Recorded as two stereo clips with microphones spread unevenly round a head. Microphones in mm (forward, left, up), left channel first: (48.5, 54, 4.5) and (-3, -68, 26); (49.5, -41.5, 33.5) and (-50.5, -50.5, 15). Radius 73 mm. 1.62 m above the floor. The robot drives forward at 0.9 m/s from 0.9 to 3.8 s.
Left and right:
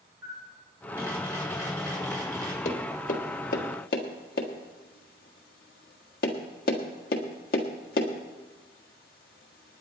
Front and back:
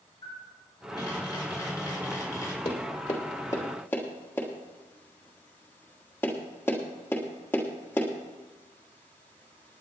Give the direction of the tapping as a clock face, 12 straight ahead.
11 o'clock.